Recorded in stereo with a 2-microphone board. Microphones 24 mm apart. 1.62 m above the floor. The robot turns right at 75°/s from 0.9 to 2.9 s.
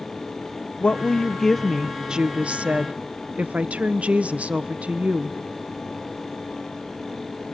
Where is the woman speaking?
125° left, 1.0 m; by 5.4 s 85° right, 1.0 m.